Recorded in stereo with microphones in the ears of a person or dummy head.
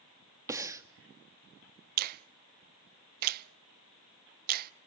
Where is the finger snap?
50° right (ahead or behind), 0.6 m.